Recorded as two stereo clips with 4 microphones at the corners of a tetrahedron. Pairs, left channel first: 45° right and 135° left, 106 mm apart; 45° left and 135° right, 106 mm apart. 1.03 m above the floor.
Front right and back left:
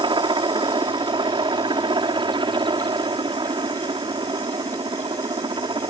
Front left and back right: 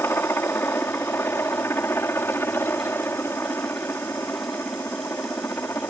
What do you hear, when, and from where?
0.0 s a helicopter: 110° left